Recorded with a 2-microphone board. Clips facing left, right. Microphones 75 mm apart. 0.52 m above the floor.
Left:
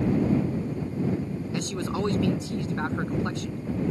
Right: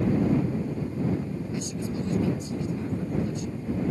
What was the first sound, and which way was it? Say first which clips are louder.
A man speaking: left 4 dB; 80° left.